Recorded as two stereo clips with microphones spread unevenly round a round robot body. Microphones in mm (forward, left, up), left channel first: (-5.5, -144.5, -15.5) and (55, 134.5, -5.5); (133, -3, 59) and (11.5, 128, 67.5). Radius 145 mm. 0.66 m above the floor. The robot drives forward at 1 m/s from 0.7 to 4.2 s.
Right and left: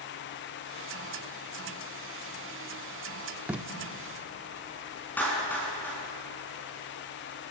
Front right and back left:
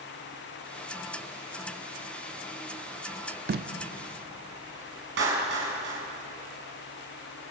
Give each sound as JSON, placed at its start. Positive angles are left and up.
{"t": 3.5, "sound": "tape being pulled", "azimuth_deg": 165, "distance_m": 0.9}
{"t": 5.2, "sound": "a clap", "azimuth_deg": 175, "distance_m": 6.0}